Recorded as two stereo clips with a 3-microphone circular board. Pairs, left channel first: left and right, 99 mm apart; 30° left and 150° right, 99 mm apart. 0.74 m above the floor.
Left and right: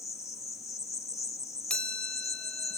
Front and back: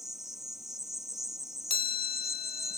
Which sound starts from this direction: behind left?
An insect, at 0.0 s.